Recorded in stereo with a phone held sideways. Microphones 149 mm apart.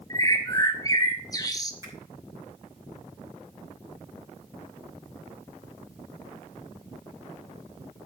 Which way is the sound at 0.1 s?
25° left (ahead or behind).